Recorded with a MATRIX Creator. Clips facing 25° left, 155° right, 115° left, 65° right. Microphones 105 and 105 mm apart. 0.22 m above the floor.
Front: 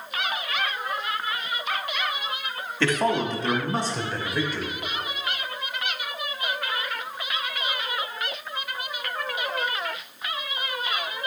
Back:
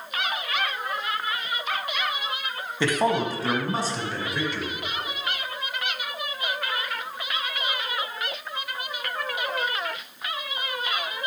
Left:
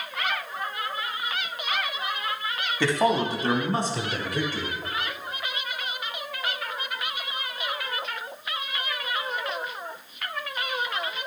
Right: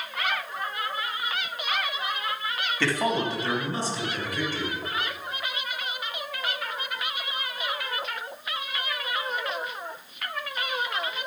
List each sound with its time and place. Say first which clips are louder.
2.8 s a man speaking: even, left 3 dB; 160° left, 1.2 m; by 4.8 s 110° left, 3 m